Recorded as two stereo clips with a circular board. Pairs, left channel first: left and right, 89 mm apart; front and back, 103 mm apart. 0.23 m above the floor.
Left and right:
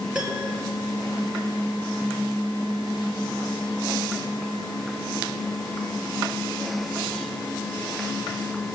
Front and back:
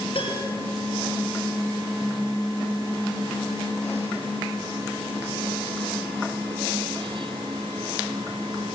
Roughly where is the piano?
Ahead.